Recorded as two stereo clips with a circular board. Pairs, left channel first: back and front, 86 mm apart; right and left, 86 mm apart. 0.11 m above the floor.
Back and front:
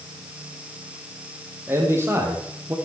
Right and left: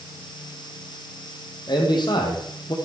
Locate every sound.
1.7 s a man speaking: 60° right, 3.5 m